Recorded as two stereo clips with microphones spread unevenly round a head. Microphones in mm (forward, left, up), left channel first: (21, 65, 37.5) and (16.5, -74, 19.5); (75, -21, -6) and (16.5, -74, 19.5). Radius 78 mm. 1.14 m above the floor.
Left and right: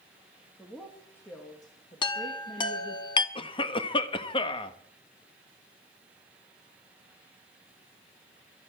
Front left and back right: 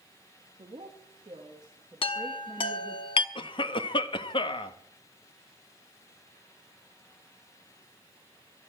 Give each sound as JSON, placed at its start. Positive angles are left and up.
{"t": 0.6, "sound": "a woman speaking", "azimuth_deg": 180, "distance_m": 2.0}
{"t": 2.0, "sound": "a chime", "azimuth_deg": 40, "distance_m": 0.9}
{"t": 3.4, "sound": "a cough", "azimuth_deg": 35, "distance_m": 1.3}